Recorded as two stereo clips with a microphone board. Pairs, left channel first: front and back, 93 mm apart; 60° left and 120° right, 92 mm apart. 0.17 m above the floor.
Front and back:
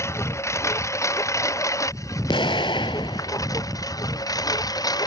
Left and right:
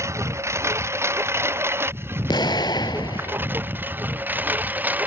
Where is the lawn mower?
60° right; by 5.1 s 45° right.